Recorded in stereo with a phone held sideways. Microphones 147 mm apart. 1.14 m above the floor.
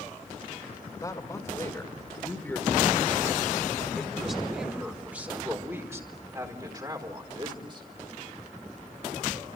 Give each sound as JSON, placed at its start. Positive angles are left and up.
{"t": 0.9, "sound": "a man speaking", "side_deg": 25, "distance_m": 5.5}